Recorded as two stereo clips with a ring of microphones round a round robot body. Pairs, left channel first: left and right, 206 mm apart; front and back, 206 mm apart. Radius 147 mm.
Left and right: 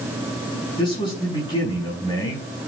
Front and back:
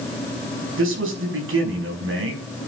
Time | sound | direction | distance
0.8 | a man speaking | 165° left | 6 m